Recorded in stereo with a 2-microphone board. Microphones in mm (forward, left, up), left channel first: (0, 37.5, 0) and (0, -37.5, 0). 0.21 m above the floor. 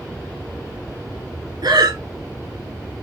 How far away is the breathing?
About 0.9 m.